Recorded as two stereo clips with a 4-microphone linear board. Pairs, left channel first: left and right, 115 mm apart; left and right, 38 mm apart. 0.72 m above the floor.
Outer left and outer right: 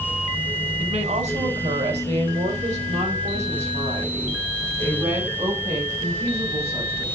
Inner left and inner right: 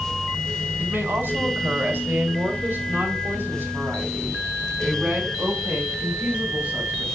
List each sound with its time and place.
0.8 s a woman speaking: 70° right (ahead or behind), 3.5 m; by 7.0 s 55° right (ahead or behind), 6 m